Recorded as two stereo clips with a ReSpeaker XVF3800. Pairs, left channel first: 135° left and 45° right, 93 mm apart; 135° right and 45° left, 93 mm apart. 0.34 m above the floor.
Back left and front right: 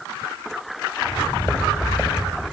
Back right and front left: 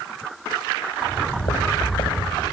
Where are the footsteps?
150° right, 6.5 m; by 2.4 s 145° right, 7 m.